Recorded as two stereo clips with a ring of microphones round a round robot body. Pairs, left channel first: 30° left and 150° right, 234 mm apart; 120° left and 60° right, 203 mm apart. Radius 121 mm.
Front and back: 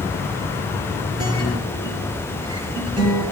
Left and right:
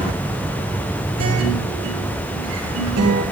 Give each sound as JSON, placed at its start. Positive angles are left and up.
{"t": 1.2, "sound": "a guitar", "azimuth_deg": -80, "distance_m": 9.5}